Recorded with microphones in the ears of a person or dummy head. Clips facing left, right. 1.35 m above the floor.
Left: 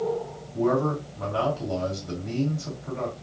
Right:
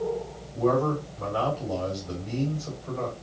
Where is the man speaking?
50° left (ahead or behind), 2.5 m.